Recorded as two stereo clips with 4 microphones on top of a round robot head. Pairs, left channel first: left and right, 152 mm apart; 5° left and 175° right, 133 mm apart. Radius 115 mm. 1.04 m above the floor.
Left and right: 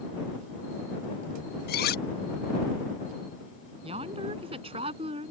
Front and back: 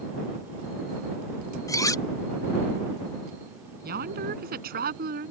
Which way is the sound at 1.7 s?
75° left.